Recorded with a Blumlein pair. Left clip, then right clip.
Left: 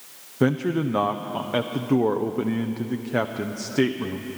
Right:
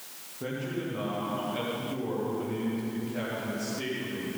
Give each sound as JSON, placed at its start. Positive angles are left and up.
{"t": 0.4, "sound": "a man speaking", "azimuth_deg": 40, "distance_m": 0.7}